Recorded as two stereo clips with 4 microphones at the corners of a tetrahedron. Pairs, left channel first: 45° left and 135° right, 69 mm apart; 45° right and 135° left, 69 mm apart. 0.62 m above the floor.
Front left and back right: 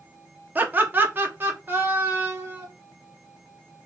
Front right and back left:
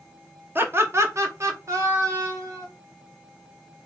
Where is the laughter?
170° left, 0.7 m; by 2.7 s 165° left, 1.9 m.